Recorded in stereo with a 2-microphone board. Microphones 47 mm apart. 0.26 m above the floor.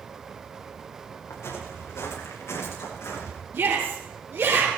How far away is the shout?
About 5 m.